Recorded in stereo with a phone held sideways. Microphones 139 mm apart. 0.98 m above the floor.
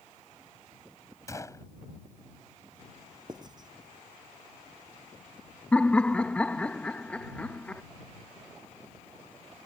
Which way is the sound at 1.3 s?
25° left (ahead or behind).